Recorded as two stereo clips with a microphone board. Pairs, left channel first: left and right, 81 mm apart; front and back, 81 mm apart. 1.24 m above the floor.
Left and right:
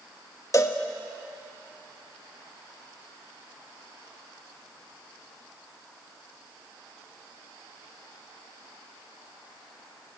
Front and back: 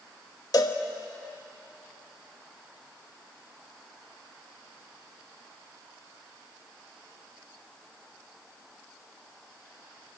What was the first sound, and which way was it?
A cowbell, 40° left.